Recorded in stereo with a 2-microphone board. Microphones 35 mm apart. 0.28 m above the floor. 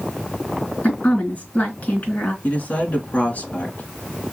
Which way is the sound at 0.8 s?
45° left (ahead or behind).